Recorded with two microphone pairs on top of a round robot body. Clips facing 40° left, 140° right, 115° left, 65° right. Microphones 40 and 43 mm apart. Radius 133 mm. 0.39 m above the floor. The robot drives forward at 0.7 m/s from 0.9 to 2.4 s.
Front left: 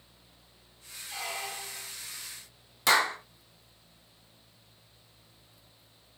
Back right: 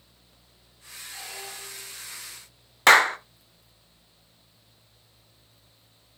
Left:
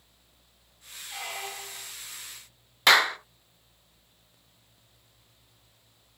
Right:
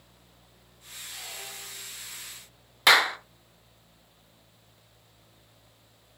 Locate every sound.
1.1 s a squeak: 70° left, 1.3 m; by 1.9 s 95° left, 1.2 m
2.9 s a clap: 150° right, 1.4 m